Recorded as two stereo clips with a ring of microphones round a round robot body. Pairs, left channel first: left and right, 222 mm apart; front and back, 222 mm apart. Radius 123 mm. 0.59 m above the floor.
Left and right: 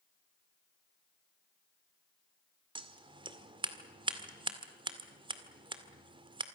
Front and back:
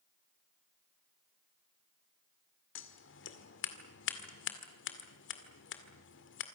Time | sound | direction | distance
2.8 | scissors | 25° right | 2.0 m